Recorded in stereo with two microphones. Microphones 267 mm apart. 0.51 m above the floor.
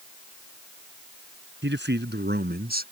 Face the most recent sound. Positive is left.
turn(degrees=-35)  # may be behind; listen again after turning